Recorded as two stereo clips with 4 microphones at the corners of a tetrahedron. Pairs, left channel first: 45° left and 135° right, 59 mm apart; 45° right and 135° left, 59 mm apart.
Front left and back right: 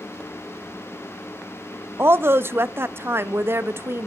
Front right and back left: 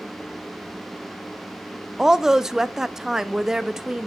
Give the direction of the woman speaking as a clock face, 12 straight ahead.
5 o'clock.